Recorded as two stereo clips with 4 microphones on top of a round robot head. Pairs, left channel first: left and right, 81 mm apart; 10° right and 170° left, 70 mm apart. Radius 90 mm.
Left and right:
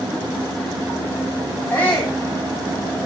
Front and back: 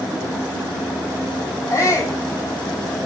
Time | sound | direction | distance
1.7 | a shout | 25° left | 2.5 m